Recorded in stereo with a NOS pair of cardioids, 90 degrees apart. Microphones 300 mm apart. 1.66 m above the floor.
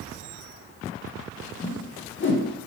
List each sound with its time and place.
1.6 s a whoosh: 40° left, 1.3 m